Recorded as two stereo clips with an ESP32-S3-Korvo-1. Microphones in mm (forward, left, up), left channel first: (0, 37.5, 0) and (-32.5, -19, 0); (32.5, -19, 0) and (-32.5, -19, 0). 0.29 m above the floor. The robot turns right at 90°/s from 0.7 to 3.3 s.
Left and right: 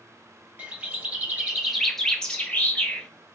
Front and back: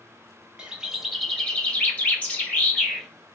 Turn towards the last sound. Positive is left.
turn(degrees=105)